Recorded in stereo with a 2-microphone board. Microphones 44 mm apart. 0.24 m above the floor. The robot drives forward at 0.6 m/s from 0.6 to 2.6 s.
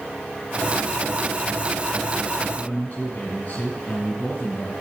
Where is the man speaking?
40° left (ahead or behind), 2.0 m.